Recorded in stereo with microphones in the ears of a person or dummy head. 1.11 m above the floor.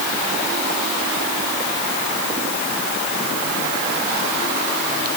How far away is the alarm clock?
I don't hear an alarm clock.